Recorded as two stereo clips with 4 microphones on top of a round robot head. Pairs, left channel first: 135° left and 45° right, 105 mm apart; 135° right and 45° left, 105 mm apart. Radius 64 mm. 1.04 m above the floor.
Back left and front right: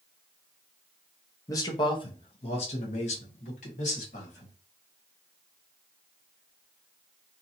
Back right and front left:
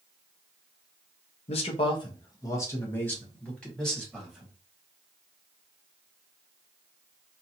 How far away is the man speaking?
About 0.9 m.